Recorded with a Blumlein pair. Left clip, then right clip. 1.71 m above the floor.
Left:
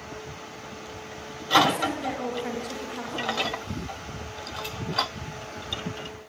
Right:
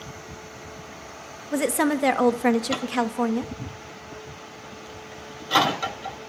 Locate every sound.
1.5 s a woman speaking: 55° right, 2 m